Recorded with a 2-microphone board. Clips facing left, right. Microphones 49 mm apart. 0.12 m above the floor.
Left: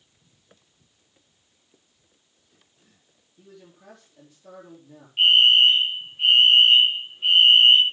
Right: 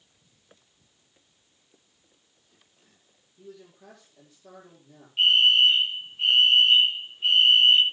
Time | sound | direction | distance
3.4 | a man speaking | 10° left (ahead or behind) | 4.5 m
5.2 | a fire alarm | 15° left (ahead or behind) | 3.5 m